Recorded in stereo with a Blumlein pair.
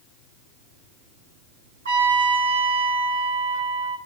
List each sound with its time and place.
1.9 s a trumpet: 65° right, 1.0 m